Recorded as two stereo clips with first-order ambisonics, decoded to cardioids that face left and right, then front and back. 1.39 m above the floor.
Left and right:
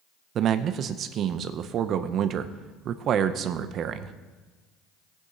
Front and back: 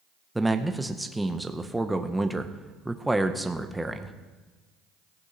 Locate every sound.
0.3 s a man speaking: 95° right, 0.5 m